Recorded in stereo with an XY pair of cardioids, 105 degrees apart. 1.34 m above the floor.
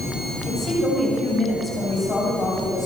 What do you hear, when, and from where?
0.5 s a woman speaking: 40° left, 7 m; by 2.9 s 35° left, 10 m